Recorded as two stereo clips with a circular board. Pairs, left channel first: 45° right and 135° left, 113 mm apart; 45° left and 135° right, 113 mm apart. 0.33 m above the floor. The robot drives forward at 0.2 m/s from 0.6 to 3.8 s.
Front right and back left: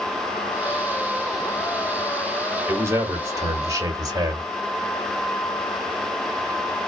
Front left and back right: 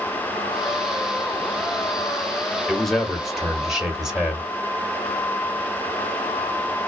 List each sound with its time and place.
2.7 s a man speaking: 125° left, 1.1 m; by 4.4 s 145° left, 1.1 m